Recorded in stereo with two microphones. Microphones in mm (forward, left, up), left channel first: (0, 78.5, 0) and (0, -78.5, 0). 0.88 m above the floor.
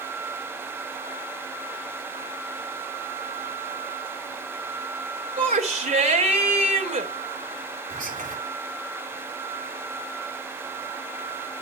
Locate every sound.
5.4 s a shout: 45° right (ahead or behind), 3 m
7.9 s whispering: 55° right (ahead or behind), 2.5 m